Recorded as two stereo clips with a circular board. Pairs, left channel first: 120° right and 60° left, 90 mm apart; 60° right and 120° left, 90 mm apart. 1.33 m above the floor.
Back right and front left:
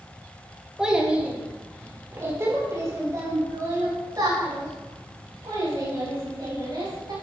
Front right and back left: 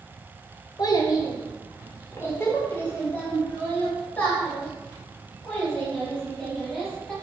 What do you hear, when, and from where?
0.8 s a child speaking: 20° right, 1.6 m; by 7.1 s 20° left, 5 m